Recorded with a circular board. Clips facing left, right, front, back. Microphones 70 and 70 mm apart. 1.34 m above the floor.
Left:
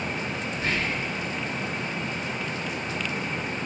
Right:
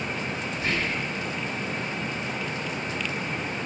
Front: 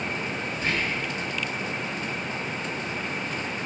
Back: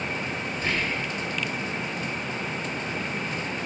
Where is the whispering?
145° left, 1.4 m.